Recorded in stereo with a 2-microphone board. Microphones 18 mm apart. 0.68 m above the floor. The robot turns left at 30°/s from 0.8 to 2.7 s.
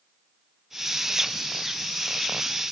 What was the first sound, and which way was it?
Only background noise.